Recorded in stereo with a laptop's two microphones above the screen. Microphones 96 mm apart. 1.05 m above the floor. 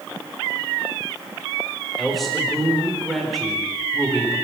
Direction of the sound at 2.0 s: Centre (ahead or behind).